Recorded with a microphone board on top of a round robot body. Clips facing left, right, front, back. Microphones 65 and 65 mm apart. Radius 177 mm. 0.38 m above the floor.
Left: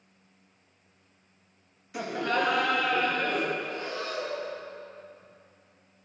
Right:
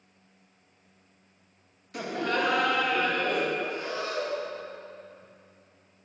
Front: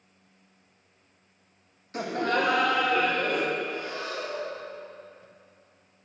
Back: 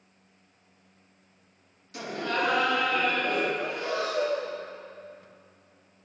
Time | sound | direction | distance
1.9 | laughter | 5° left | 1.1 m
3.6 | breathing | 165° right | 0.5 m